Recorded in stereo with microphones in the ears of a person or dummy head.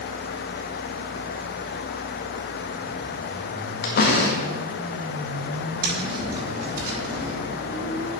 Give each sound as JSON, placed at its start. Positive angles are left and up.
{"t": 3.8, "sound": "a door slam", "side_deg": 50, "distance_m": 1.6}
{"t": 5.8, "sound": "tapping", "side_deg": -50, "distance_m": 5.5}